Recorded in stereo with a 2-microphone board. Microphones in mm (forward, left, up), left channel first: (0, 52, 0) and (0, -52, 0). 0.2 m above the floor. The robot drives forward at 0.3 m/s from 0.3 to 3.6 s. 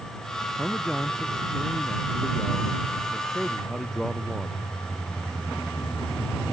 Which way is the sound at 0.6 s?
Centre (ahead or behind).